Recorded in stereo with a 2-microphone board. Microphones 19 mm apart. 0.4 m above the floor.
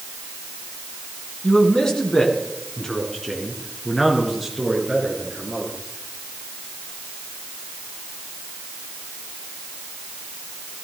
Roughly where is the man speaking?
Left.